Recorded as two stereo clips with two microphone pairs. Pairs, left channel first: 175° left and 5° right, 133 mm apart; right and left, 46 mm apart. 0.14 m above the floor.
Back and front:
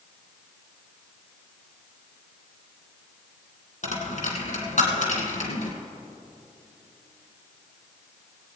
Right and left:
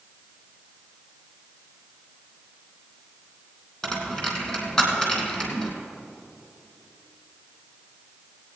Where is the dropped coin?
160° right, 2.5 m.